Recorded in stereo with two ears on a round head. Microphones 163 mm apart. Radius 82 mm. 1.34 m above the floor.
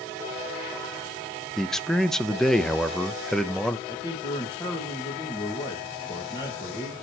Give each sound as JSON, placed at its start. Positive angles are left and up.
{"t": 1.6, "sound": "a man speaking", "side_deg": 0, "distance_m": 0.8}
{"t": 3.9, "sound": "a man speaking", "side_deg": 25, "distance_m": 2.0}